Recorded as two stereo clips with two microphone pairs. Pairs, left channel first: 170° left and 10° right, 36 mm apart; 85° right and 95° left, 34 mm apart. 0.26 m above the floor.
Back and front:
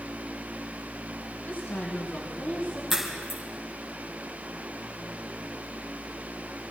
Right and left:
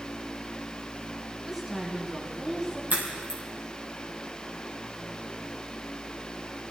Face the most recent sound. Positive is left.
turn(degrees=70)